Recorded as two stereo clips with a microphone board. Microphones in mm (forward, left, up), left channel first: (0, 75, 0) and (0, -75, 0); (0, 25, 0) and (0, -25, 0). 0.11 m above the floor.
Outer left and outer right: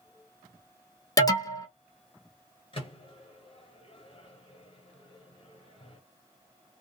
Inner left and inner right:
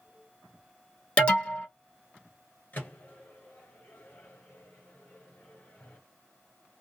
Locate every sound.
1.2 s an alarm: 25° left (ahead or behind), 1.1 m
2.7 s a microwave: 40° left (ahead or behind), 1.5 m